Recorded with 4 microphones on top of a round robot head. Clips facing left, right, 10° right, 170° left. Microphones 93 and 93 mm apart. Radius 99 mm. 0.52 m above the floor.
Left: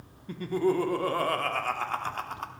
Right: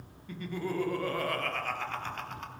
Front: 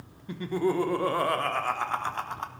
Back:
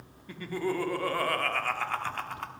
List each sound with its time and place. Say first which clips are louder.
0.3 s laughter: left 9 dB, front 5 dB; 55° left, 1.1 m